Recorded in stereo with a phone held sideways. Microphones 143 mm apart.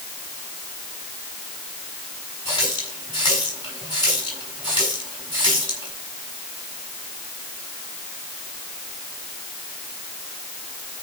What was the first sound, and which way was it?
A running tap, 30° left (ahead or behind).